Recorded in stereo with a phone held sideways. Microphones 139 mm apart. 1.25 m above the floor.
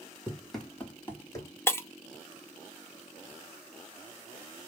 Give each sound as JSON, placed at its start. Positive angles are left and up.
{"t": 0.3, "sound": "running footsteps", "side_deg": -10, "distance_m": 1.6}
{"t": 1.7, "sound": "breaking glass", "side_deg": 20, "distance_m": 0.8}